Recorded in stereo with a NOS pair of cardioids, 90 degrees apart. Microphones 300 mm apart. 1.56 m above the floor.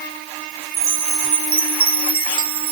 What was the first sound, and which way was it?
A chime, 45° right.